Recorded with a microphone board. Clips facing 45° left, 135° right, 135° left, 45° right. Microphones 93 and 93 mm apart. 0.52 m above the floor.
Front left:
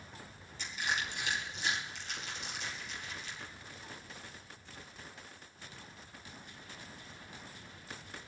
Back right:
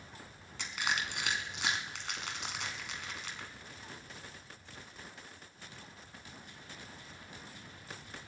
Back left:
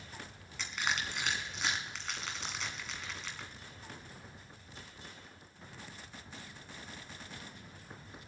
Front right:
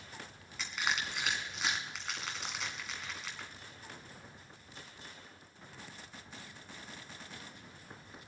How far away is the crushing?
About 1.8 m.